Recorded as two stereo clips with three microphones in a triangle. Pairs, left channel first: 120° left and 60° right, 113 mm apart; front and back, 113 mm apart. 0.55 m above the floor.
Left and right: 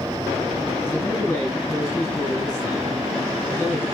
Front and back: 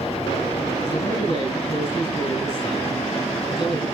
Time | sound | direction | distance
0.9 | a man speaking | 45° left | 9.5 m